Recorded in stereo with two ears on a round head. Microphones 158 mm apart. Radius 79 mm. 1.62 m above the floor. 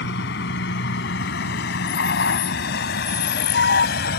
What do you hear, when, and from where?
0.0 s a vehicle: 65° left (ahead or behind); by 4.2 s 60° left (ahead or behind)